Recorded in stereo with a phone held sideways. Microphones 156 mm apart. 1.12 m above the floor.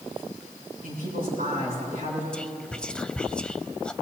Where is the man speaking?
80° right, 7 m.